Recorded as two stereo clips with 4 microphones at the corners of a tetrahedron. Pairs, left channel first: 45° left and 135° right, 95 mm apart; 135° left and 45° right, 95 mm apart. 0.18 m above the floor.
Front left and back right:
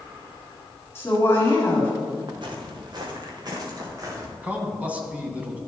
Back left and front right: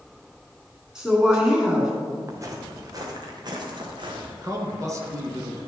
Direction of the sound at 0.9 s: 30° left.